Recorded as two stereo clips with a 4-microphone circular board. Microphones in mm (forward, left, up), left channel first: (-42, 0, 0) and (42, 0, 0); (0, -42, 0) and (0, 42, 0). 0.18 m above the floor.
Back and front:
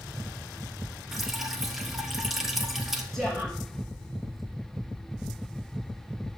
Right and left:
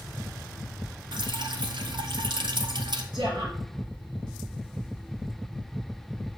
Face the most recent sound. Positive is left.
turn(degrees=95)